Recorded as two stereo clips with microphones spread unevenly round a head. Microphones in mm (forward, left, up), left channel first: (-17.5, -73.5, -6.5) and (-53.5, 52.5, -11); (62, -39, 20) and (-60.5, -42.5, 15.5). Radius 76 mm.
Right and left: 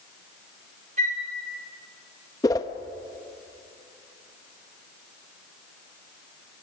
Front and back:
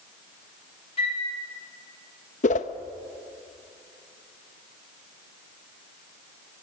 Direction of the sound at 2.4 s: 10° right.